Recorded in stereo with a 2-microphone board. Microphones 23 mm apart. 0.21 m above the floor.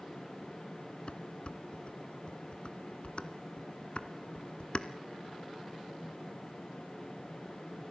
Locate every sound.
1.1 s dishes clattering: 50° left (ahead or behind), 1.6 m